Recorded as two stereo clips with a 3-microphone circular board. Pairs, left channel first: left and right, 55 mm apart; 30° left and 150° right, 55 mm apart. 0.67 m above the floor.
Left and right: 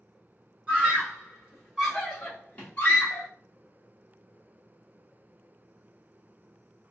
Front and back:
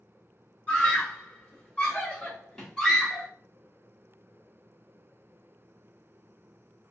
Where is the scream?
30° right, 1.7 m; by 3.3 s 100° left, 1.4 m.